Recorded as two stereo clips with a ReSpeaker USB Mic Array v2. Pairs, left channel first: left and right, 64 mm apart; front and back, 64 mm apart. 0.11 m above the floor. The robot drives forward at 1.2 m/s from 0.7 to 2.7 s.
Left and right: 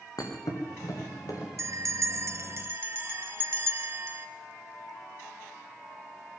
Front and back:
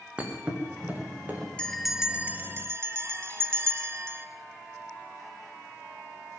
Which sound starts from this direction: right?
A bell, at 1.6 s.